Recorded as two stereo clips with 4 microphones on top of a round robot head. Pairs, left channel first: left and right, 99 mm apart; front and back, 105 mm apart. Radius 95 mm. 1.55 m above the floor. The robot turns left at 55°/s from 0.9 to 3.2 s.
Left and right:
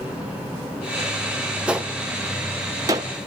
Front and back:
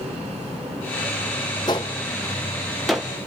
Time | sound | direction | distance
1.7 | a gunshot | 20° right | 0.6 m